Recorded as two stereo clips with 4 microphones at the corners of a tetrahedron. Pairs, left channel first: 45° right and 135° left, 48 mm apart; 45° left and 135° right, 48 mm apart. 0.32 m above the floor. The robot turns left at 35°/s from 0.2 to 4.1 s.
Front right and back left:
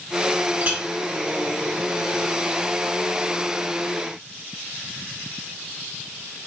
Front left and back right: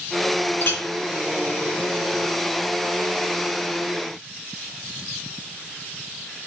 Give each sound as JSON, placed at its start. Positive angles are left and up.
{"t": 0.6, "sound": "a clink", "azimuth_deg": 85, "distance_m": 1.2}